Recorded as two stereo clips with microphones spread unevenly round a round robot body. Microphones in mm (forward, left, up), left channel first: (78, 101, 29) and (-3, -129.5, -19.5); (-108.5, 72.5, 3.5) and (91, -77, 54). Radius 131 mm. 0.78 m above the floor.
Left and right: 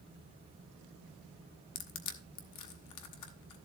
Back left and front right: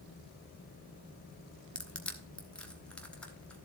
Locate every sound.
1.8 s crushing: 60° left, 1.1 m